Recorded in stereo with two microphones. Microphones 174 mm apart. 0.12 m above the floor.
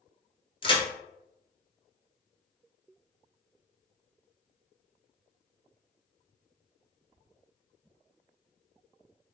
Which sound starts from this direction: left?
A crack, at 0.6 s.